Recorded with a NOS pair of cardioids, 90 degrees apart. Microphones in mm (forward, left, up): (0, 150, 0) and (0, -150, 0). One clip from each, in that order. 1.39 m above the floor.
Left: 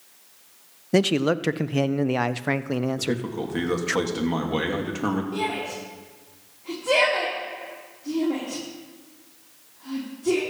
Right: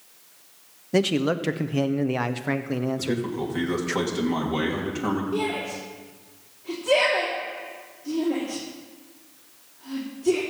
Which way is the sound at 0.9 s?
25° left.